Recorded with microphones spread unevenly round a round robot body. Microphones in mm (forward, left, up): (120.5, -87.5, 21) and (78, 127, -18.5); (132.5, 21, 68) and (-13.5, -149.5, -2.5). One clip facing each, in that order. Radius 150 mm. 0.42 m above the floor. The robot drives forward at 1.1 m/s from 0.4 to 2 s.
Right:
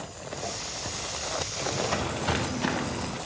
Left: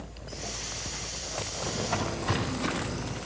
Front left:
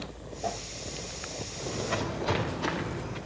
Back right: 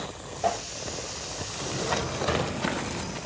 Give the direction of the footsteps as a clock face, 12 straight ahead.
4 o'clock.